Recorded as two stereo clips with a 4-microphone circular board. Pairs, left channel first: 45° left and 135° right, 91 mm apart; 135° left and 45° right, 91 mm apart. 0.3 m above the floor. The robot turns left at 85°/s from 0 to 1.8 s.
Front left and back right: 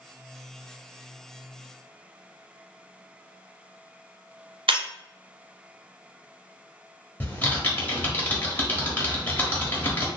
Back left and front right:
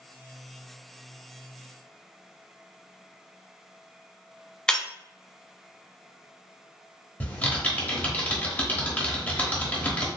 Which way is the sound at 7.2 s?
90° left.